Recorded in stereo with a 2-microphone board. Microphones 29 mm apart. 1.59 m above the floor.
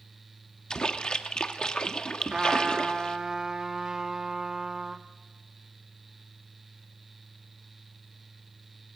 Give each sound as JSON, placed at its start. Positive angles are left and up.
{"t": 0.7, "sound": "a splash", "side_deg": 30, "distance_m": 1.2}
{"t": 2.3, "sound": "a trumpet", "side_deg": -25, "distance_m": 1.2}